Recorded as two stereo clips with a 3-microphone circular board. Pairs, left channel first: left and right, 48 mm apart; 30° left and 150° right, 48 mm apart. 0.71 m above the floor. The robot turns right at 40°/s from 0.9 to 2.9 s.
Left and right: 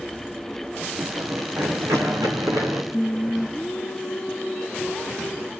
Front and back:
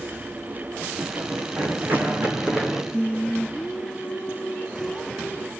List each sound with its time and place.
1.0 s running footsteps: 125° right, 2 m; by 2.8 s 70° right, 3 m
2.9 s singing: 45° left, 1.0 m